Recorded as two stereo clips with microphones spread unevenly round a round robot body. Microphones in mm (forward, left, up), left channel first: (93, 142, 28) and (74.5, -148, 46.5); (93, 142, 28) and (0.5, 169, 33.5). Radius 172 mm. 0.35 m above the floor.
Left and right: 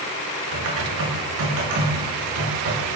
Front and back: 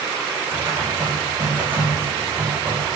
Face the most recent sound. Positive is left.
turn(degrees=-125)